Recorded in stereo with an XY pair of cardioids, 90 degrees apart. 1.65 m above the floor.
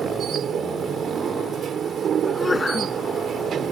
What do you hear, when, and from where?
0.0 s a machine running: 60° right
2.2 s a sneeze: 25° left